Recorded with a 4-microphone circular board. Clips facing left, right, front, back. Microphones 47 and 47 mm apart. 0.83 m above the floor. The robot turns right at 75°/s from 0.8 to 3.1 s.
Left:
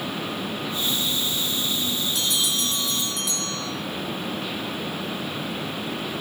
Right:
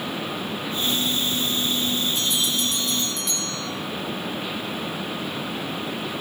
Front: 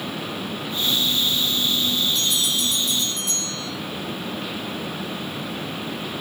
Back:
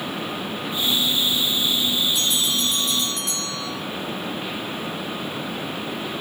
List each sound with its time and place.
2.1 s a bell: 105° left, 7 m; by 3.7 s 175° left, 7 m